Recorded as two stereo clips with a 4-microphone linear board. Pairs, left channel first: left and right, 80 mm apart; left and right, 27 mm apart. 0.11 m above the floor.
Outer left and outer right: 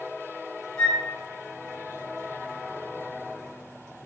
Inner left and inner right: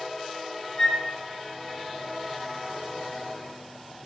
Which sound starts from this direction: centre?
A flute, at 0.8 s.